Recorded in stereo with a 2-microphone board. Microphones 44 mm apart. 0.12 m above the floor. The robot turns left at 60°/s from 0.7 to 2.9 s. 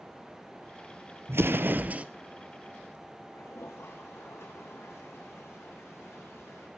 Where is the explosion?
105° right, 0.9 m; by 2.0 s 150° right, 0.9 m.